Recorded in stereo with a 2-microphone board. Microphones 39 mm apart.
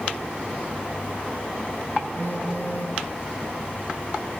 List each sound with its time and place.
2.2 s a phone buzzing: 55° left (ahead or behind), 4 m